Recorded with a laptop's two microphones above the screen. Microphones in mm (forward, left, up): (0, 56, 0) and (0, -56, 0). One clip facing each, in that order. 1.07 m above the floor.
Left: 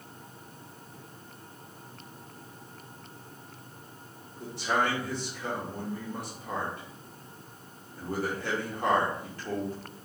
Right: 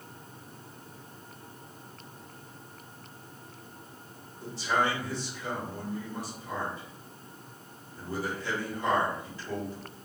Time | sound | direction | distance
4.4 | a man speaking | 55° left (ahead or behind) | 1.6 m